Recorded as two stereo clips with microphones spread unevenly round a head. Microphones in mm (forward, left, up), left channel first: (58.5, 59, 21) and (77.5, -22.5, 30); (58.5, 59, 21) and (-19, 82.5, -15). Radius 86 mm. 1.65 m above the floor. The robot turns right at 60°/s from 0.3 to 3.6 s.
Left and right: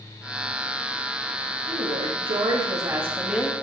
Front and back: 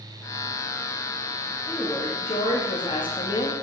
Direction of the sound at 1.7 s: 100° right.